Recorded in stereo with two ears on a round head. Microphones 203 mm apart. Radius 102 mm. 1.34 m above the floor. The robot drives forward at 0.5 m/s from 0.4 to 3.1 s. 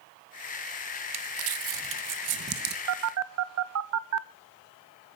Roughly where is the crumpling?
Right.